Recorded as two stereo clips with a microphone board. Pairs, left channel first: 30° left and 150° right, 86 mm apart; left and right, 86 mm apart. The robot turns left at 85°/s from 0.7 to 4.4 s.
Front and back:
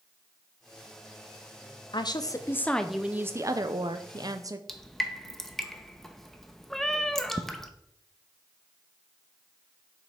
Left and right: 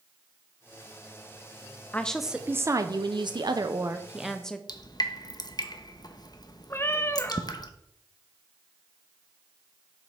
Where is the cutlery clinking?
No cutlery clinking in this recording.